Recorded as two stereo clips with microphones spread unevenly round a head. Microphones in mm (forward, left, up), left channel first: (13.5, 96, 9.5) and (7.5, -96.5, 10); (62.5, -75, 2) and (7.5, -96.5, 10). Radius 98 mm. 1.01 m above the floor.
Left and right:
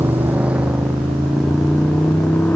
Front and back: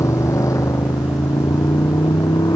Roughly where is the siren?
No siren in this recording.